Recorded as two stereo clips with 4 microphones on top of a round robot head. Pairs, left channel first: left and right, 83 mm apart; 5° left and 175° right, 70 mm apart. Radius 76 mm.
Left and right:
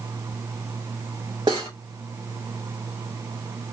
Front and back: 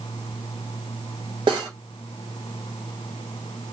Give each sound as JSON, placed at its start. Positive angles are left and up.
{"t": 1.5, "sound": "cutlery clinking", "azimuth_deg": -145, "distance_m": 0.7}